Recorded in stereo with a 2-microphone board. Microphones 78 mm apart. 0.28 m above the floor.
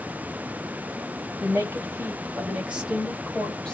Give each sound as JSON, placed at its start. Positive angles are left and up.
{"t": 1.4, "sound": "a woman speaking", "side_deg": -40, "distance_m": 1.3}